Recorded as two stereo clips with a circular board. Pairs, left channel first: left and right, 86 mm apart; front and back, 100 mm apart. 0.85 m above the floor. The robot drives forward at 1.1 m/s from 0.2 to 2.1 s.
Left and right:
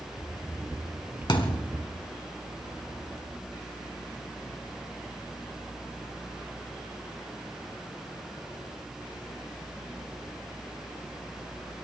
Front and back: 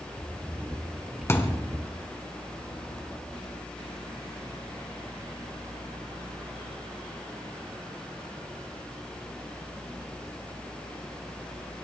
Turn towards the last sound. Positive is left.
turn(degrees=85)